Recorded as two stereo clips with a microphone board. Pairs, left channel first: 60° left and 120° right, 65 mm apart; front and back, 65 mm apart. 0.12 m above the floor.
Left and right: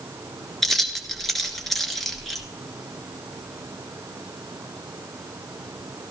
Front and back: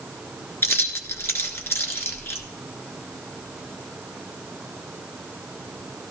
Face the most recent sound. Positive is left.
turn(degrees=-25)